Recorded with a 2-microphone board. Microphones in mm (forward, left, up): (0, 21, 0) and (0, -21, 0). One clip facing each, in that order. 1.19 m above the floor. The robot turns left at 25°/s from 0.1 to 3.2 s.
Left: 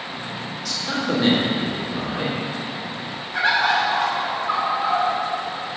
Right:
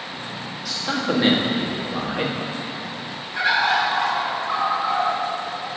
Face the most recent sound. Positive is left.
turn(degrees=60)  # may be behind; listen again after turning